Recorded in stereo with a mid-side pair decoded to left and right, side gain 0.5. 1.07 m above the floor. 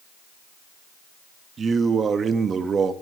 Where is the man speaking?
40° right, 1.2 m.